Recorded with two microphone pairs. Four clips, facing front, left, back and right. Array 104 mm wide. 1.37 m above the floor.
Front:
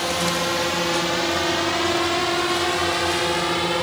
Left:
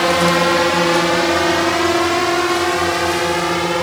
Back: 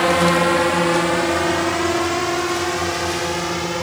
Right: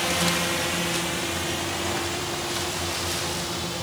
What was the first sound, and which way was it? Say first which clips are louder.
A drone: left 12 dB, back 8 dB; 120° left.